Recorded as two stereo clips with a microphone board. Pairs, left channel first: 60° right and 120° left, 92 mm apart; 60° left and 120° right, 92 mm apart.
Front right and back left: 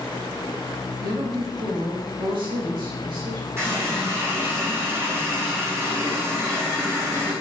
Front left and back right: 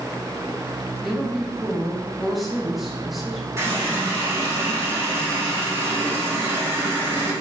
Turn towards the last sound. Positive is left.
turn(degrees=180)